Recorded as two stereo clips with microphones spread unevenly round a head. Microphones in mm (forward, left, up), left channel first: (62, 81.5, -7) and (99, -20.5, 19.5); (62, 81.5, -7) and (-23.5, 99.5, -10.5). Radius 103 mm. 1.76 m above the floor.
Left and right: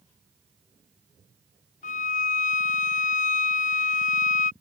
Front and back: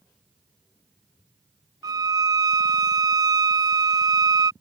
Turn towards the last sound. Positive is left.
turn(degrees=125)